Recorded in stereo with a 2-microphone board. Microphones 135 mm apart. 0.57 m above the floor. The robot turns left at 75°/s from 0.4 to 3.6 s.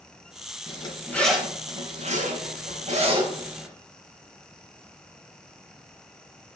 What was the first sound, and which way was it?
A zipper, 50° left (ahead or behind).